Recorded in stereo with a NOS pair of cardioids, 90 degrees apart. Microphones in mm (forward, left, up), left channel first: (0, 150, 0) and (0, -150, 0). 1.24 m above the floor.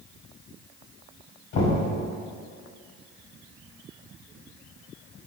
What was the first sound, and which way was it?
Knocking, 70° left.